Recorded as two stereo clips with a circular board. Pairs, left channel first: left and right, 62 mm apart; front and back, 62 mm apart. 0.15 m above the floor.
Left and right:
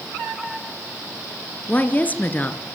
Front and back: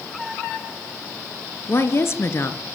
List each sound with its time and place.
1.7 s a woman speaking: 35° left, 2.5 m